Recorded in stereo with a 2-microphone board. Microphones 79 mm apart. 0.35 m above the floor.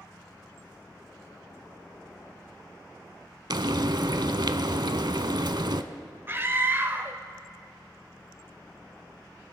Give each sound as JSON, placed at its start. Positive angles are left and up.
{"t": 3.5, "sound": "frying", "side_deg": -65, "distance_m": 0.5}
{"t": 6.3, "sound": "a scream", "side_deg": -30, "distance_m": 0.9}